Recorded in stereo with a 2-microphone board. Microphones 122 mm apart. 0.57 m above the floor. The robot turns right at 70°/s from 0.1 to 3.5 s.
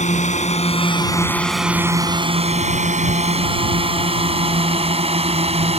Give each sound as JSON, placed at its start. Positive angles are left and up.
{"t": 0.0, "sound": "a drone", "side_deg": 75}